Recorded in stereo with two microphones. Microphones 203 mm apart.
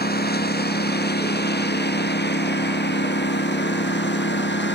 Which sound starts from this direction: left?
A lawn mower, at 0.0 s.